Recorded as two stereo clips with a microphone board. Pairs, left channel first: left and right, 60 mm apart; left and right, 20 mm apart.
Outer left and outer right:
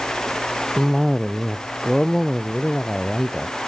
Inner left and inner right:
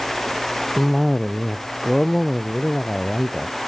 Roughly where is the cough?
Centre.